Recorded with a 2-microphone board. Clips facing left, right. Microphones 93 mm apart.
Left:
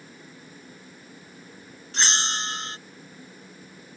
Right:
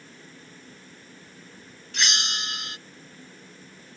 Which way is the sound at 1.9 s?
35° left (ahead or behind).